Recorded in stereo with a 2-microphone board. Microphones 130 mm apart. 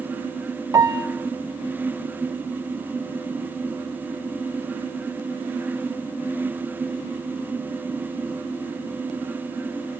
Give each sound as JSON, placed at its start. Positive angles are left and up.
{"t": 0.7, "sound": "a piano", "side_deg": -25, "distance_m": 0.5}